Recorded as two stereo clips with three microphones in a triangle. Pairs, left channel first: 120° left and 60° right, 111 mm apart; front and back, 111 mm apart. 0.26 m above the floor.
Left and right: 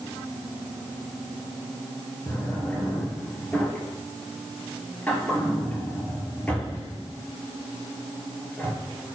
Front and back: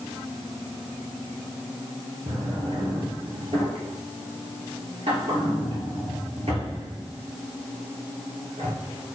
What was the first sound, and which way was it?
A drawer, 165° right.